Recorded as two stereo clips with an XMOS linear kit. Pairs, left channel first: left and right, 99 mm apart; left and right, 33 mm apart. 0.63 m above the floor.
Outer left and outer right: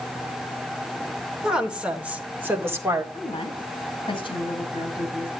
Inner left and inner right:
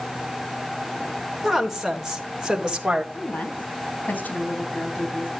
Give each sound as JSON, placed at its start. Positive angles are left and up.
{"t": 1.4, "sound": "a woman speaking", "side_deg": -5, "distance_m": 2.5}
{"t": 3.1, "sound": "a woman speaking", "side_deg": 60, "distance_m": 3.0}